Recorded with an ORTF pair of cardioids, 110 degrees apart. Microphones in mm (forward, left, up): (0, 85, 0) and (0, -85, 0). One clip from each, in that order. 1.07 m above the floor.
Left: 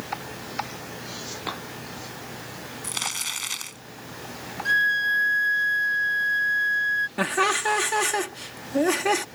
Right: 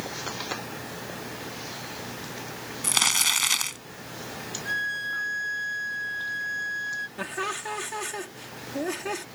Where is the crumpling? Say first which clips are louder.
Right 7 dB; 40° right.